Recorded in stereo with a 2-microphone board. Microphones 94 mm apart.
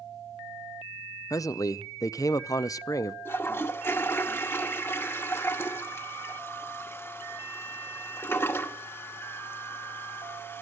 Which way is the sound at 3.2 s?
25° left (ahead or behind).